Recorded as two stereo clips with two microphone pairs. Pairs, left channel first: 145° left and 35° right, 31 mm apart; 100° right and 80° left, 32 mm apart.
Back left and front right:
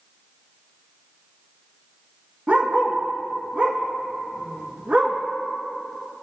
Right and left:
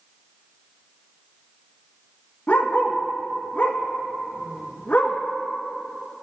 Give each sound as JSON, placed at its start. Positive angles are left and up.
{"t": 2.5, "sound": "a dog barking", "azimuth_deg": -75, "distance_m": 1.4}